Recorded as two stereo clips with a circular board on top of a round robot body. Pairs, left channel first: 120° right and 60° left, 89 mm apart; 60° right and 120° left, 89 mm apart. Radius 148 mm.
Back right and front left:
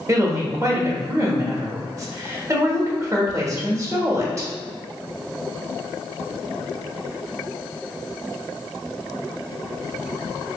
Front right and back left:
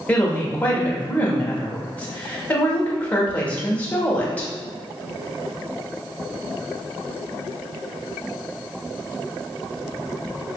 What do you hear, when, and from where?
0.1 s a woman speaking: 10° left, 1.4 m